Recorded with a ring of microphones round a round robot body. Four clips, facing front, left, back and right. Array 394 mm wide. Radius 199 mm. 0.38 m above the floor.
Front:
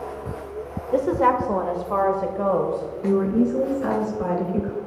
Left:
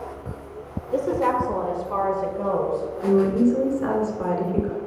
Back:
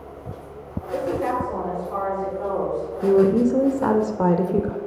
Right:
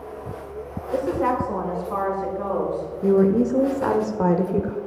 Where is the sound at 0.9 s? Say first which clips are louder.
Left 1 dB, front 5 dB; 5° left, 1.4 m; by 2.9 s 10° left, 2.5 m.